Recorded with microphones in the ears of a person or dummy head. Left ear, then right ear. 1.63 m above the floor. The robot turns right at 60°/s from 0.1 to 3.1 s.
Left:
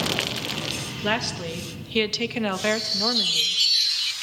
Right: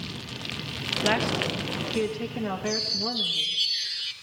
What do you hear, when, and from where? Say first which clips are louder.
1.0 s a woman speaking: right 1 dB; 5° right, 2.5 m; by 3.6 s 115° left, 2.5 m
2.6 s a chime: left 4 dB; 25° right (ahead or behind), 2 m; by 4.1 s centre (ahead or behind), 2 m